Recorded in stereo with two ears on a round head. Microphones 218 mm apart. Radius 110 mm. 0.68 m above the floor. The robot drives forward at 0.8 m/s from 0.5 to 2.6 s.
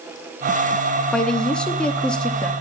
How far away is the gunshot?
No gunshot in this recording.